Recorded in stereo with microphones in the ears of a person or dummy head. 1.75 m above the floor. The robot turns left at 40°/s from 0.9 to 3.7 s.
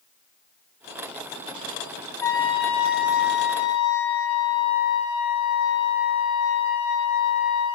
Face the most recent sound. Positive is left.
turn(degrees=105)